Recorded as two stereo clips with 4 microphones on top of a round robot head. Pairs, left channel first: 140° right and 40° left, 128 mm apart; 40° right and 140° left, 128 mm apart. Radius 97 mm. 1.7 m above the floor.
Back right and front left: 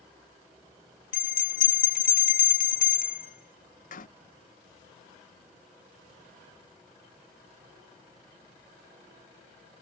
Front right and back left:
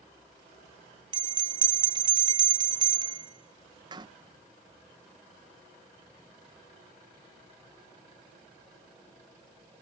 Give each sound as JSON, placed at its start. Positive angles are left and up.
{"t": 1.1, "sound": "a bell", "azimuth_deg": -165}